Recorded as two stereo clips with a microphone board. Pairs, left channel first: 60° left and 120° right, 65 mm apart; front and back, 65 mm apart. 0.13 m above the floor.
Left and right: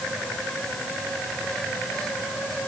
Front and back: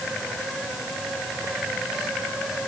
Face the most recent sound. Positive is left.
No sound to turn to.